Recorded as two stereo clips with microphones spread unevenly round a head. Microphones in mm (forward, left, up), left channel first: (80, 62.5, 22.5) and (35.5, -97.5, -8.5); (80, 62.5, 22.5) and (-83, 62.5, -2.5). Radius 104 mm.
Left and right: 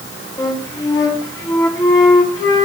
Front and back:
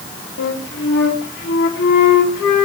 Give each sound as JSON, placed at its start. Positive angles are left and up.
{"t": 0.4, "sound": "a flute", "azimuth_deg": 5, "distance_m": 3.0}